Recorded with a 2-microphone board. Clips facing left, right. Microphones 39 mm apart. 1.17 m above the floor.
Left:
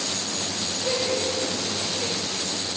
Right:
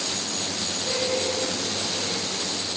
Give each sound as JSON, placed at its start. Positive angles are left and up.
{"t": 0.8, "sound": "laughter", "side_deg": 50, "distance_m": 2.5}